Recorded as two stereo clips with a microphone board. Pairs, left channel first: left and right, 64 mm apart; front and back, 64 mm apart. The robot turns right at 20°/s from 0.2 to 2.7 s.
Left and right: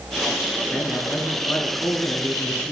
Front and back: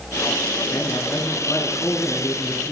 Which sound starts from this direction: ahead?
A man speaking, at 0.7 s.